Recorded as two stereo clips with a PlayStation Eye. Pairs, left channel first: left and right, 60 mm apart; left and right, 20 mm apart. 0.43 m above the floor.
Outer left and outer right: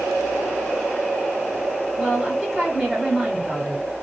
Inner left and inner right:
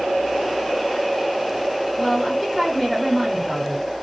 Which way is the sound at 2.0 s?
Centre (ahead or behind).